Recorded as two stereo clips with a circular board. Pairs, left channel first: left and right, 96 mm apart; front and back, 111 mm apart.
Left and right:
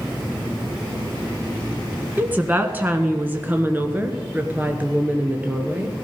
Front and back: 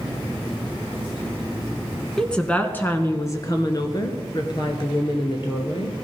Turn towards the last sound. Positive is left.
turn(degrees=-20)